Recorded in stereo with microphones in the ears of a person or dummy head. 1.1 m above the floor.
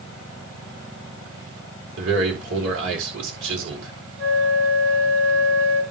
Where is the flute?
70° right (ahead or behind), 3.5 m.